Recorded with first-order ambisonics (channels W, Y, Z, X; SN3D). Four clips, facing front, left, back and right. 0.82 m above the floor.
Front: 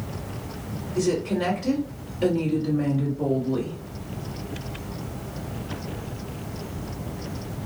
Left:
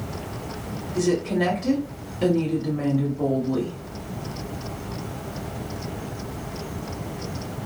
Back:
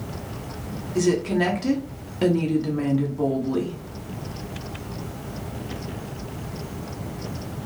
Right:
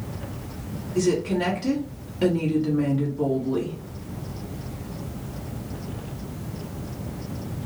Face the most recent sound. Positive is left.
turn(degrees=-170)